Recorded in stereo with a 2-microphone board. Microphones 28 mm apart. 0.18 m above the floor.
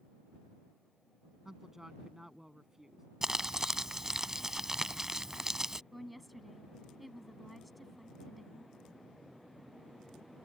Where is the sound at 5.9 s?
Centre (ahead or behind).